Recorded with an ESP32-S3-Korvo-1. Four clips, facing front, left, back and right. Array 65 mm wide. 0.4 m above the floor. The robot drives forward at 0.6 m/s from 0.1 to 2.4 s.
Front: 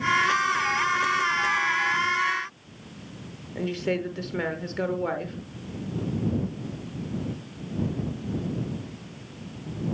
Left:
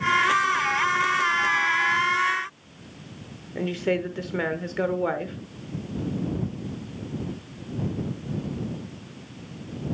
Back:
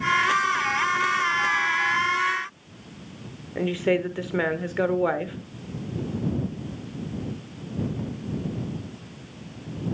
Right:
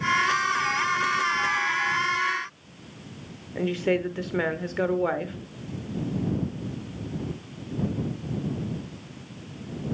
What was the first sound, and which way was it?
A woman speaking, 175° right.